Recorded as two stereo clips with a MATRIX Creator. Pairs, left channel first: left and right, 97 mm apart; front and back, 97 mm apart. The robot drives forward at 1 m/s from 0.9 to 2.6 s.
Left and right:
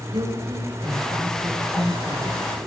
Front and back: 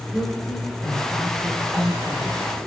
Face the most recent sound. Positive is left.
turn(degrees=-105)